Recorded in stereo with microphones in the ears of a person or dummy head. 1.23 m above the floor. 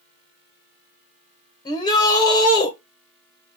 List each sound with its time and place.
1.6 s a shout: 30° left (ahead or behind), 1.0 m